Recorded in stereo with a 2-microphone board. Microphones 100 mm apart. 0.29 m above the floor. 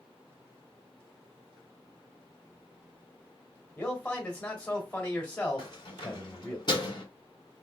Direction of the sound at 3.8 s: 15° left (ahead or behind).